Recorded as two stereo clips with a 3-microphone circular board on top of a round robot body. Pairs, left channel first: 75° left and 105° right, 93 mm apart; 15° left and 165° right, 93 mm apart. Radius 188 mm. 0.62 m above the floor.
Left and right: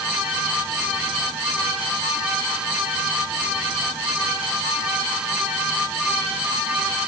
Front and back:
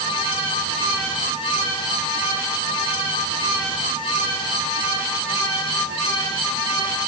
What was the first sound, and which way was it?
Only background noise.